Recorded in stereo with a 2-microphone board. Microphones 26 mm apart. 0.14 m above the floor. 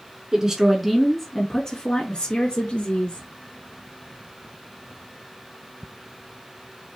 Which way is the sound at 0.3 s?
25° right (ahead or behind).